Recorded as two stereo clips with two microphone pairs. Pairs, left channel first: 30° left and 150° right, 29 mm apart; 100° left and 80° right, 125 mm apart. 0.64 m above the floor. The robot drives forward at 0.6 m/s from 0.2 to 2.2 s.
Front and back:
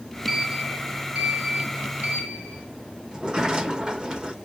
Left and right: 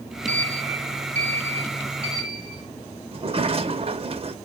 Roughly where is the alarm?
No alarm in this recording.